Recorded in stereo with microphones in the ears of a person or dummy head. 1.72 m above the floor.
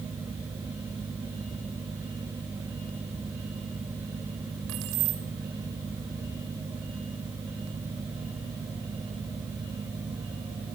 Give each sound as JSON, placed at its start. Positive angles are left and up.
{"t": 4.7, "sound": "keys jangling", "side_deg": -70, "distance_m": 1.8}